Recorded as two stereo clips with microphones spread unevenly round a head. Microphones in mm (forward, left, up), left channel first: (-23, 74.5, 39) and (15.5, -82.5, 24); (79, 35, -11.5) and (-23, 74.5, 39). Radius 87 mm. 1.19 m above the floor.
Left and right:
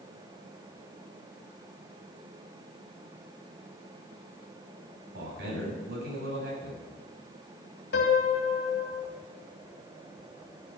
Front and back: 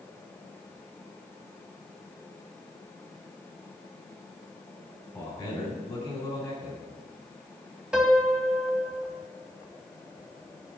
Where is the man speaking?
105° right, 7 m.